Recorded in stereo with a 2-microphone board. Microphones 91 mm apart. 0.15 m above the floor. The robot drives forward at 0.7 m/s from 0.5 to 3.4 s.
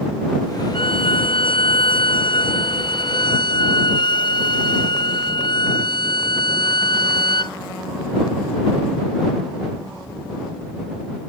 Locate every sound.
0.7 s a violin: 70° left (ahead or behind); by 7.6 s 55° left (ahead or behind)